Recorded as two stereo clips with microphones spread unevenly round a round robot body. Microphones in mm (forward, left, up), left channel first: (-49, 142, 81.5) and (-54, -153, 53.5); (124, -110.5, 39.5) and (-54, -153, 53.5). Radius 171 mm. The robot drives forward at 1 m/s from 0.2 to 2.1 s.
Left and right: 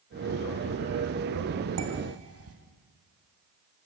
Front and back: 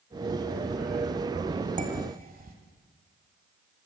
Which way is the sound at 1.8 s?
120° right.